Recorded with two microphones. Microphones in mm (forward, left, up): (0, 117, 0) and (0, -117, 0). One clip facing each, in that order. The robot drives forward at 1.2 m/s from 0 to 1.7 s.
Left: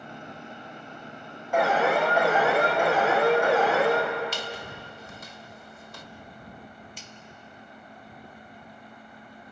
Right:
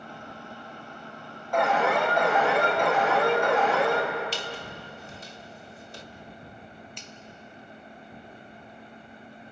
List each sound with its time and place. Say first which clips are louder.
1.5 s an alarm: left 1 dB; 5° left (ahead or behind), 4.5 m
4.3 s a squeak: even; 30° right (ahead or behind), 1.2 m
7.0 s a finger snap: right 1 dB; 5° left (ahead or behind), 1.2 m